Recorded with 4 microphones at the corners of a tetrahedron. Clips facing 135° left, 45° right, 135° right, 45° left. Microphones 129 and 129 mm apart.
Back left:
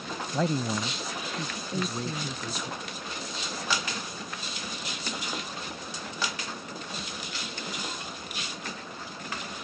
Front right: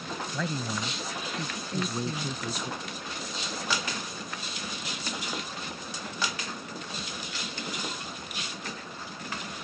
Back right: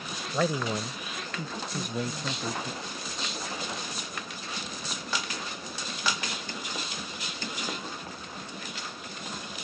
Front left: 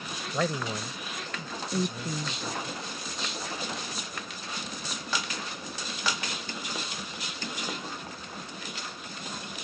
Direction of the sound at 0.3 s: 140° left.